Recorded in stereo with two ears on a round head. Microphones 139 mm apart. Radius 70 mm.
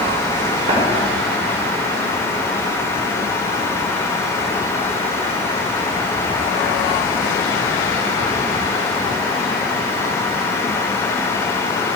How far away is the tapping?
About 4.5 m.